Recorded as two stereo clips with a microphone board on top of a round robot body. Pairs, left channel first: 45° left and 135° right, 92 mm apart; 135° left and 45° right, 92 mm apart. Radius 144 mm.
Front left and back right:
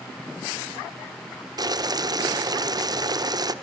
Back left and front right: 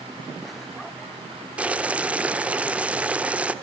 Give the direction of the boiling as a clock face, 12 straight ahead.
4 o'clock.